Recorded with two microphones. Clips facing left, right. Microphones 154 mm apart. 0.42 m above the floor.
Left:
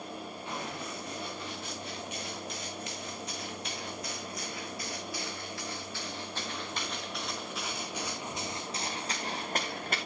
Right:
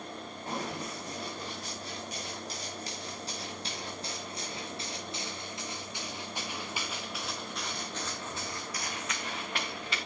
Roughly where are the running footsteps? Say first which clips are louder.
Right 4 dB; right.